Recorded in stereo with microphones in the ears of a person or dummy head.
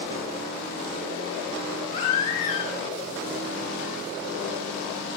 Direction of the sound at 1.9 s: 50° left (ahead or behind).